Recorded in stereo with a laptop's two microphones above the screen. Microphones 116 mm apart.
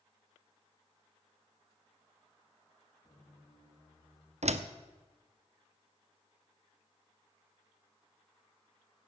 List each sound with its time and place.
3.0 s a squeak: 45° left (ahead or behind), 7 m
4.4 s a door slam: 75° right (ahead or behind), 0.8 m